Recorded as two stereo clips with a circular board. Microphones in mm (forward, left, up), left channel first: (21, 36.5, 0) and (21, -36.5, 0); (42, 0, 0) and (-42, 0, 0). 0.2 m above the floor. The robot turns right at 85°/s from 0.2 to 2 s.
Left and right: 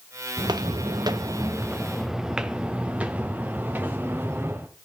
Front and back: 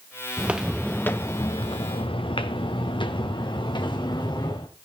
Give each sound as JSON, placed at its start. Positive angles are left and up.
{"t": 0.4, "sound": "footsteps", "azimuth_deg": -110, "distance_m": 1.2}